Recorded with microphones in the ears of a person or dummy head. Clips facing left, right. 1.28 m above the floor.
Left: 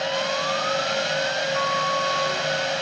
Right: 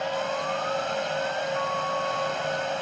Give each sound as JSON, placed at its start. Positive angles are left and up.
{"t": 0.0, "sound": "a fan", "side_deg": 30}
{"t": 1.5, "sound": "a flute", "side_deg": 70}